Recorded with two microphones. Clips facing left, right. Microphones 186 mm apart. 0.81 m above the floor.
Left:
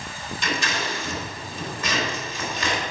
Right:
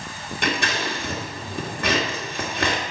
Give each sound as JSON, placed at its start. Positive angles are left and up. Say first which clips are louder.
{"t": 0.4, "sound": "scissors", "louder": "right 3 dB", "side_deg": -60, "distance_m": 1.9}